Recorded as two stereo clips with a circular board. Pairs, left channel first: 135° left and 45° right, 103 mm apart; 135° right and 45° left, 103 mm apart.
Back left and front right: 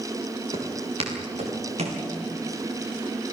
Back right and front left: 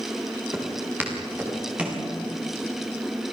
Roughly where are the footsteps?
Ahead right.